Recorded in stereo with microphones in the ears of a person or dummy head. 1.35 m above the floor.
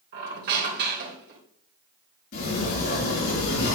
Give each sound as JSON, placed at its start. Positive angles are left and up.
{"t": 0.1, "sound": "a squeak", "side_deg": -50, "distance_m": 3.0}
{"t": 2.3, "sound": "a sliding door", "side_deg": 55, "distance_m": 5.0}